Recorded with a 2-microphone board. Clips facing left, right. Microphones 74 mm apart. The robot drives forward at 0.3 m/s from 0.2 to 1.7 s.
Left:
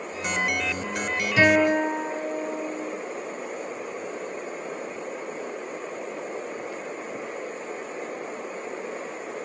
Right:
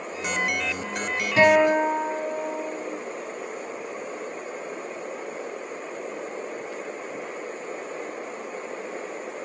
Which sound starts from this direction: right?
A guitar, at 1.4 s.